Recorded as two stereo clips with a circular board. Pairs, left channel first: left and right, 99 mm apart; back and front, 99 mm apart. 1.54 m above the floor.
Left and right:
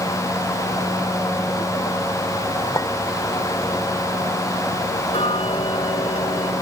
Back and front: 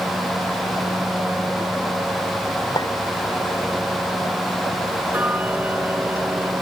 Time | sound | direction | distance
2.8 | a clink | 140° left | ?
5.1 | ticking | 70° left | ?